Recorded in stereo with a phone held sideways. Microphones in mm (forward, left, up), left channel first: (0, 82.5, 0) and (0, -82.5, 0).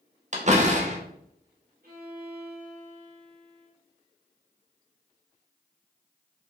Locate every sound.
0.3 s a door slam: 45° right (ahead or behind), 1.4 m
1.8 s a violin: 65° right (ahead or behind), 2.5 m